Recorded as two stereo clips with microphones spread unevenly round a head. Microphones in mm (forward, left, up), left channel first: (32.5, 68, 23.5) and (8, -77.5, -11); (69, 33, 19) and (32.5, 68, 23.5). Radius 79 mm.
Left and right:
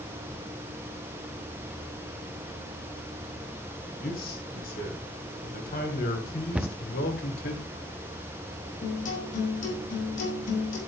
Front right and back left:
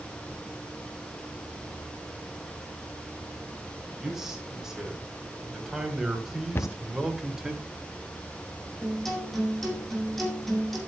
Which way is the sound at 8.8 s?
45° left.